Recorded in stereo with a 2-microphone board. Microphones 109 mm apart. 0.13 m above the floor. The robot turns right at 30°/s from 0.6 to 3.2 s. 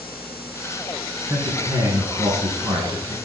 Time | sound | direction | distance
1.3 | a man speaking | 125° right | 2.0 m